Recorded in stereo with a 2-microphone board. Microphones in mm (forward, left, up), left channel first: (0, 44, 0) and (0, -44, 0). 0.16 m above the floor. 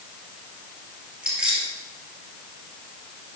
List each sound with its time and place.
1.2 s keys jangling: 10° right (ahead or behind), 2.5 m